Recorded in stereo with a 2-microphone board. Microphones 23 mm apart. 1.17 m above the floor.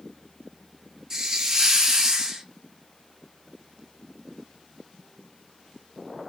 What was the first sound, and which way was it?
A hiss, 25° right (ahead or behind).